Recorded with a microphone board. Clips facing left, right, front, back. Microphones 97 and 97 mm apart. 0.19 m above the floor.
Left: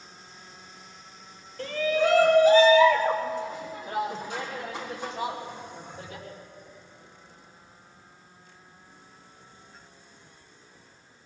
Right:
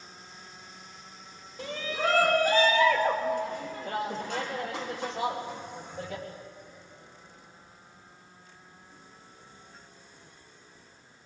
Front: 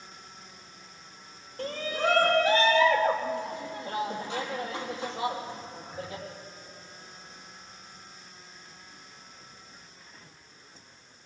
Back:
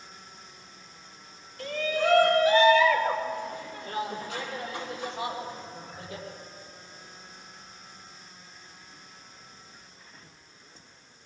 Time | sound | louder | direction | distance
1.6 | a shout | left 7 dB, back 2 dB | 25° right | 1.2 m